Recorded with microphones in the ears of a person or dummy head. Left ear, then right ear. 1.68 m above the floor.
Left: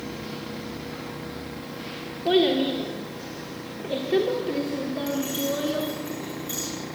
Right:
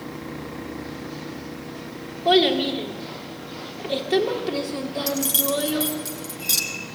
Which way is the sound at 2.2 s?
30° right (ahead or behind).